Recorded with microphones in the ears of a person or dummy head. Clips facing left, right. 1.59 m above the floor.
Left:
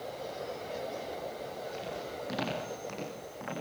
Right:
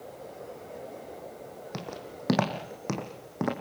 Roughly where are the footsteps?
Right.